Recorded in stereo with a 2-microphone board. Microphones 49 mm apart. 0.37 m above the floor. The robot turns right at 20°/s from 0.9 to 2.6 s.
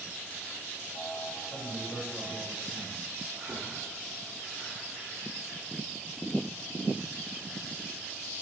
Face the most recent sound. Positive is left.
turn(degrees=-55)  # may be behind; listen again after turning